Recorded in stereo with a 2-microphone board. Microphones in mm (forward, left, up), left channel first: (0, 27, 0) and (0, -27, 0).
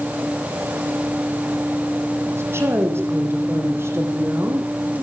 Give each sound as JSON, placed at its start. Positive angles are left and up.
{"t": 2.2, "sound": "a woman speaking", "side_deg": -50, "distance_m": 6.0}